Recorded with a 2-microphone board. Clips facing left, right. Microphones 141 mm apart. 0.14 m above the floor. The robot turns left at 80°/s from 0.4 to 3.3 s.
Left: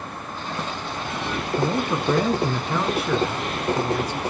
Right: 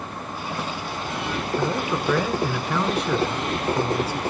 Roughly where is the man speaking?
Behind left.